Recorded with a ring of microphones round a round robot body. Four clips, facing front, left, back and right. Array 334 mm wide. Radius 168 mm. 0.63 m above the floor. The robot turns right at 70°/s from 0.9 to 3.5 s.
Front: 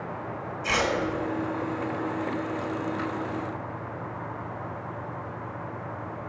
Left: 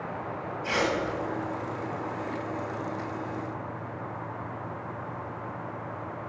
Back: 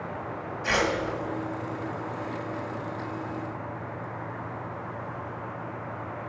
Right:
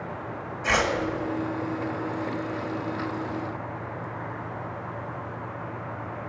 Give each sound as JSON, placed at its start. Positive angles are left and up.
{"t": 0.6, "sound": "tearing paper", "azimuth_deg": -105, "distance_m": 1.6}